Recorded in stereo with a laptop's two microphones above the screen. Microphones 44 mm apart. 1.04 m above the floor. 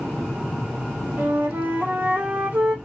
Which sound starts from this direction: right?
A flute, at 1.2 s.